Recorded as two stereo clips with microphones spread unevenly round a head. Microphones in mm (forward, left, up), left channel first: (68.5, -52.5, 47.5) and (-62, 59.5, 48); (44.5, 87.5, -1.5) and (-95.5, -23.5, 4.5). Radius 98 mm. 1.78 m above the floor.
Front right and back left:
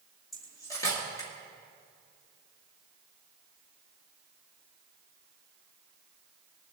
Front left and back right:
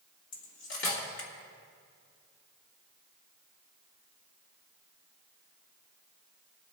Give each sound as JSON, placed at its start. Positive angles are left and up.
{"t": 0.3, "sound": "cutlery clinking", "azimuth_deg": 30, "distance_m": 2.0}